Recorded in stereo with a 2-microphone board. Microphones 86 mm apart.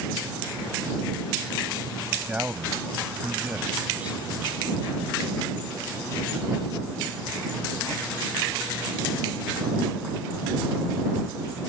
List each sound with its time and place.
2.3 s a man speaking: 15° right (ahead or behind)